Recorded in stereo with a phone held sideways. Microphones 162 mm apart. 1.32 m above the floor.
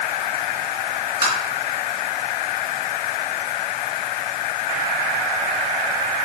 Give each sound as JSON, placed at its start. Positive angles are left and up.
{"t": 1.2, "sound": "tapping", "side_deg": -35, "distance_m": 3.5}